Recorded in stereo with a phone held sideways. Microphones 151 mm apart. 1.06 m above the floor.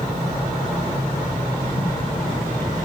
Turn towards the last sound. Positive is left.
turn(degrees=65)  # may be behind; listen again after turning